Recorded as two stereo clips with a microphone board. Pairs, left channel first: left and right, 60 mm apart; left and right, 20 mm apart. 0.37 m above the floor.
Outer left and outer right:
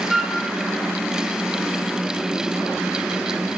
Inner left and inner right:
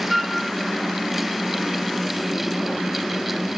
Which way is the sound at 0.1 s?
5° left (ahead or behind).